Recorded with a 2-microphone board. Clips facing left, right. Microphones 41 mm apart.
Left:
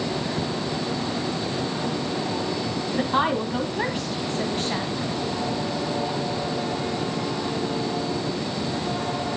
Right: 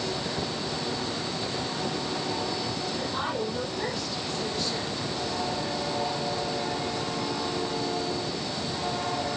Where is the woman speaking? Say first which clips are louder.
Left 10 dB; 55° left (ahead or behind), 1.7 m.